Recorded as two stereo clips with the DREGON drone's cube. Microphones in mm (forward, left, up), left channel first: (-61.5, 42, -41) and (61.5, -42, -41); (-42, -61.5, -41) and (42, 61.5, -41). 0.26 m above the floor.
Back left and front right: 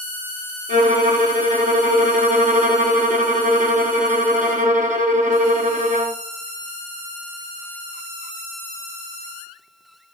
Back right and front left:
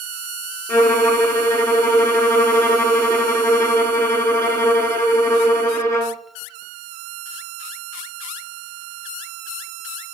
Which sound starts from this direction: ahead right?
A violin, at 0.7 s.